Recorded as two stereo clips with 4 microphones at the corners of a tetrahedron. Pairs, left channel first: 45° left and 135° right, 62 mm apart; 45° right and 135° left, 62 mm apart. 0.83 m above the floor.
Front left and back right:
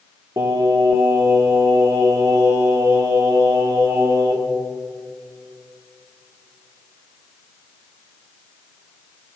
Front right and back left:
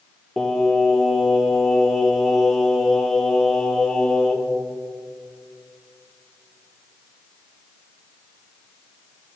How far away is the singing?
About 2 m.